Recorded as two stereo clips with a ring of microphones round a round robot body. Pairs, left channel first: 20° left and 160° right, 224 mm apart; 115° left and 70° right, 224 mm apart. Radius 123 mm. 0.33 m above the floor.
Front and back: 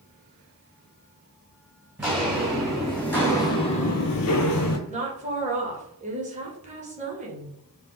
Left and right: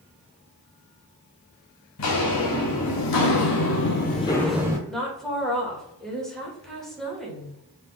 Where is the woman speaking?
160° right, 1.2 m.